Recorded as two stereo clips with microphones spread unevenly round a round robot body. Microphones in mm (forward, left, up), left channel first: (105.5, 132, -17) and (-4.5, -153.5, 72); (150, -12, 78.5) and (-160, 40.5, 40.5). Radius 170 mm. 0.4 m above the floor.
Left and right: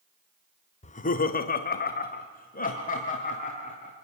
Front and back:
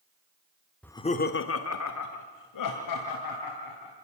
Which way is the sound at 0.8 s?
85° left.